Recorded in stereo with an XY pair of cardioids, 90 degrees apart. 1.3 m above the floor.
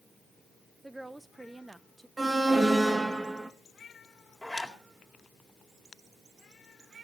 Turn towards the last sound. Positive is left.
turn(degrees=5)